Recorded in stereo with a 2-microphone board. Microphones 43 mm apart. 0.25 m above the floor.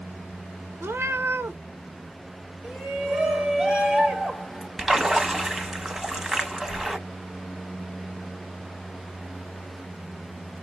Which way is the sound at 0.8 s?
80° right.